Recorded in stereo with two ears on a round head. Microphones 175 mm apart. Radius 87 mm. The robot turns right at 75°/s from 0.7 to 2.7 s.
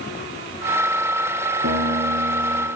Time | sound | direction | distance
1.6 | a guitar | 90° right | 4.5 m